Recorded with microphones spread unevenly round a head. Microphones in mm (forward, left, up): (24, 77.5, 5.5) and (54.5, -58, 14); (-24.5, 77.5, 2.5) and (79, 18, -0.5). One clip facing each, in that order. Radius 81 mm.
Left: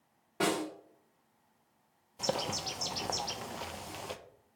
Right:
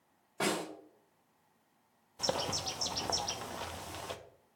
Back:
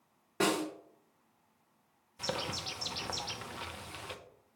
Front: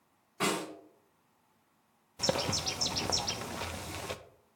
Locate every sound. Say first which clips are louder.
0.4 s a snare drum: left 3 dB, back 2 dB; 175° right, 3.5 m
2.2 s a bird: left 1 dB, front 6 dB; 20° left, 0.7 m